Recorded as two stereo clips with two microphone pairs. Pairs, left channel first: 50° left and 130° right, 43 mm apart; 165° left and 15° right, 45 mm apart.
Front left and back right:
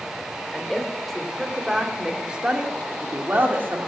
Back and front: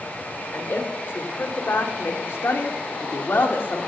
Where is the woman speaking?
130° left, 2.5 m; by 3.9 s 160° right, 1.8 m.